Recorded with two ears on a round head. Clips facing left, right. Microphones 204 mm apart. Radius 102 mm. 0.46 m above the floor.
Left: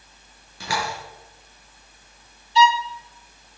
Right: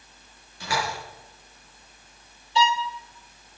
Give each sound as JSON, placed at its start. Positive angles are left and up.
{"t": 0.6, "sound": "a door slam", "side_deg": 60, "distance_m": 6.5}
{"t": 2.5, "sound": "a violin", "side_deg": -45, "distance_m": 0.8}